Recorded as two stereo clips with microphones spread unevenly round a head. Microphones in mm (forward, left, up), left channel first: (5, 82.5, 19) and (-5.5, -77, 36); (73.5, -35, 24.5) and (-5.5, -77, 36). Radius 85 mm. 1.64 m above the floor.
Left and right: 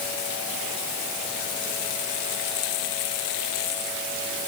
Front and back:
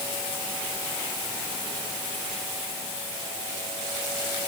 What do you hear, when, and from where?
Only background noise.